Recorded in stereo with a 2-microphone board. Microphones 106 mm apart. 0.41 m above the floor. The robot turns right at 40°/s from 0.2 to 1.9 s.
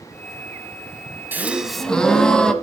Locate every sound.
1.3 s a gasp: 15° right (ahead or behind), 0.9 m; by 2.5 s 5° left (ahead or behind), 0.9 m